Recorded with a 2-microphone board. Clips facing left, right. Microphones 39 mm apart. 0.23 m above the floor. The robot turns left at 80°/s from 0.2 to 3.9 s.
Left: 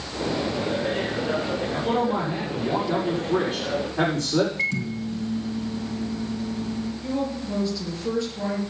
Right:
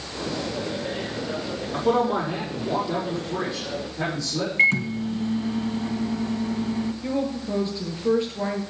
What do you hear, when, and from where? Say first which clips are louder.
1.7 s a man speaking: right 4 dB; 85° right, 6.5 m; by 4.5 s 105° left, 6.5 m
4.6 s a microwave: right 6 dB; 45° right (ahead or behind), 1.6 m
7.0 s a woman speaking: right 1 dB; 30° right (ahead or behind), 4 m